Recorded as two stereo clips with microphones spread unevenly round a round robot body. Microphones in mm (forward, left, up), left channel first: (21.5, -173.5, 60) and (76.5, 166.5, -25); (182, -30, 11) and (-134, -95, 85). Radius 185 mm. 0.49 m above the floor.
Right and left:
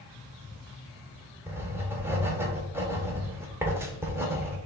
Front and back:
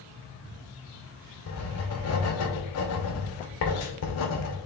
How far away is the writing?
About 1.6 m.